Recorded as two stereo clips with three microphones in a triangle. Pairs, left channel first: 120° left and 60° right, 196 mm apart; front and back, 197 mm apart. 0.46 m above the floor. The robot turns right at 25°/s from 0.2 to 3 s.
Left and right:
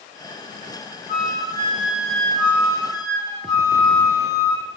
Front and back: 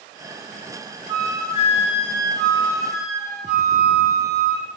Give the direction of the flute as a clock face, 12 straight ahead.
12 o'clock.